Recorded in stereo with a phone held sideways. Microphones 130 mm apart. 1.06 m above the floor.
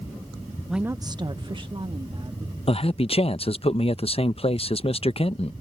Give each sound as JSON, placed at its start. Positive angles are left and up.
{"t": 0.7, "sound": "a woman speaking", "side_deg": 0}
{"t": 2.7, "sound": "a man speaking", "side_deg": 50}